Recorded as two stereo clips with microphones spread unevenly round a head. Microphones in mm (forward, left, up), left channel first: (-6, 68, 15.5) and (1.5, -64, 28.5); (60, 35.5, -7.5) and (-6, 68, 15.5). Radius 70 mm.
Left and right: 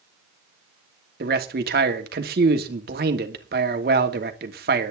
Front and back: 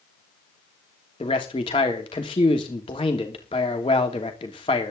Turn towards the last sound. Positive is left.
turn(degrees=-70)